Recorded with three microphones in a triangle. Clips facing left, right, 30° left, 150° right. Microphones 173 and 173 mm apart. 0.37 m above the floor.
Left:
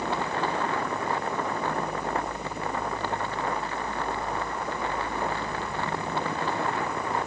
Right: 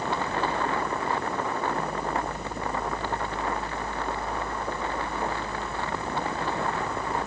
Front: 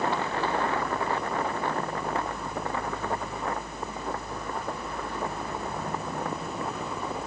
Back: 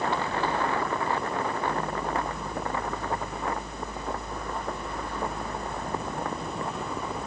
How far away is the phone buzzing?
I don't hear a phone buzzing.